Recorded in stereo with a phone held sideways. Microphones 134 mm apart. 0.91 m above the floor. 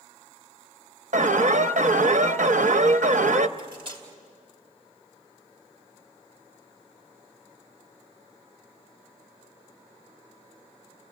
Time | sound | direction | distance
1.1 | an alarm | 70° right (ahead or behind) | 0.6 m
3.6 | cutlery clinking | 40° right (ahead or behind) | 2.5 m